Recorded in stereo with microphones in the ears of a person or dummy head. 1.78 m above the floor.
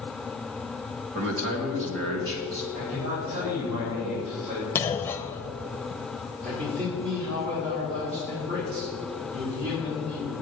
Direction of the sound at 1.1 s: 70° right (ahead or behind).